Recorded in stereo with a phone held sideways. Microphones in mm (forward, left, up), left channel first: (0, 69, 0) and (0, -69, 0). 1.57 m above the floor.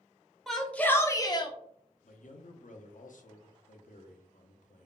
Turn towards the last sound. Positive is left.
turn(degrees=70)  # may be behind; listen again after turning